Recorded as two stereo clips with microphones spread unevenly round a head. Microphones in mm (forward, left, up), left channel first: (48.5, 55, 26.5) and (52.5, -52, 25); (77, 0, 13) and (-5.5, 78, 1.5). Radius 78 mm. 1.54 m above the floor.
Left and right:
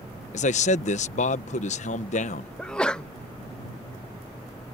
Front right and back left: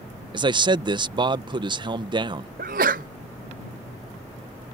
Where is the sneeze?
175° left.